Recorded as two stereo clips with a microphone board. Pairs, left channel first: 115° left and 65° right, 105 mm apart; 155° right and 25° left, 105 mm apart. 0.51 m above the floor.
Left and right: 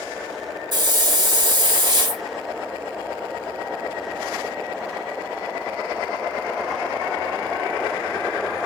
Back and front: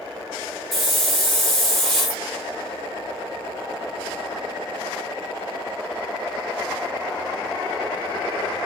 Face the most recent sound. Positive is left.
turn(degrees=-70)